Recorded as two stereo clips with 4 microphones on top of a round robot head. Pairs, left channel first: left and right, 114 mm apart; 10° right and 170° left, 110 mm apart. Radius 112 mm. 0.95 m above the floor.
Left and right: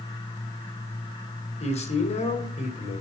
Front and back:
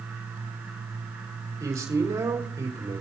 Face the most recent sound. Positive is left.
turn(degrees=110)